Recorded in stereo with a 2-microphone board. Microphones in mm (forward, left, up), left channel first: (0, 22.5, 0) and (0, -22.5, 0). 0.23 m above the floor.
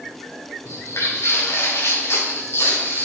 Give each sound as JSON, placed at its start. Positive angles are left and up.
{"t": 0.7, "sound": "footsteps", "side_deg": 85, "distance_m": 3.5}